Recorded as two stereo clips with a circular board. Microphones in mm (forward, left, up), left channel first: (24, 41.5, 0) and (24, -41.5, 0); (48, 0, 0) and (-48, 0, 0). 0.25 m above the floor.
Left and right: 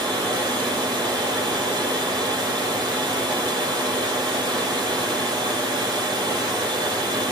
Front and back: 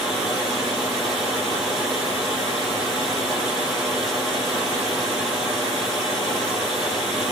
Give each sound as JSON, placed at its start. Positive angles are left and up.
{"t": 0.0, "sound": "running water", "azimuth_deg": -95, "distance_m": 2.5}